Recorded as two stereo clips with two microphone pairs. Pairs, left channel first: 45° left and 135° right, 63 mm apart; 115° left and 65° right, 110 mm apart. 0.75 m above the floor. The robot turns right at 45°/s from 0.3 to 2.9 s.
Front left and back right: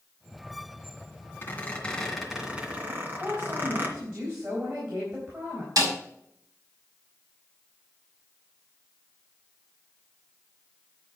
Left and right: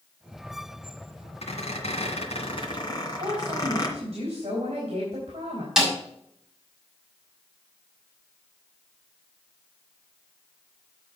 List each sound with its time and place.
1.4 s a squeak: 95° left, 2 m; by 3.9 s 165° left, 2 m
2.9 s a woman speaking: 90° right, 4 m
5.8 s a snare drum: 150° right, 3.5 m